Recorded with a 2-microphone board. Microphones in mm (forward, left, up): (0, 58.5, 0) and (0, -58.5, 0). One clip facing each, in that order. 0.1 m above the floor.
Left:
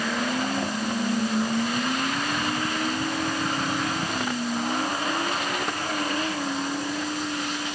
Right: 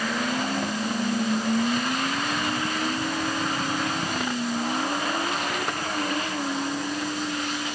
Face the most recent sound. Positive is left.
No sound to turn to.